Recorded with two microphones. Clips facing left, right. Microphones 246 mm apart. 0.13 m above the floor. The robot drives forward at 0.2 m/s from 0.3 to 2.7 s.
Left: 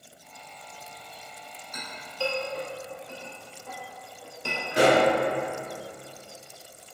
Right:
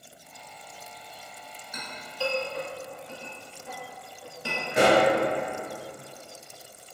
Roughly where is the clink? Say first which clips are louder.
Left 1 dB; centre.